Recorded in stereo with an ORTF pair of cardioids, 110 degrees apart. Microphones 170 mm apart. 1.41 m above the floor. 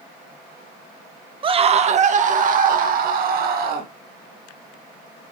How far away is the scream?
About 1.0 m.